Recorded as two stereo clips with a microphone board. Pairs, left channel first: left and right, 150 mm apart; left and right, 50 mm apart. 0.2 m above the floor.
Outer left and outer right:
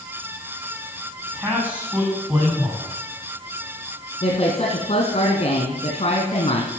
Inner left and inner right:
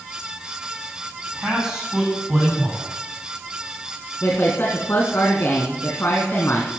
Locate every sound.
1.3 s a man speaking: 10° right (ahead or behind), 9 m
4.2 s a woman speaking: 45° left (ahead or behind), 1.9 m